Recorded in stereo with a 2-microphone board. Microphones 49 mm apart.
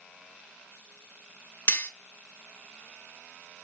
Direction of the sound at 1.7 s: 55° left (ahead or behind).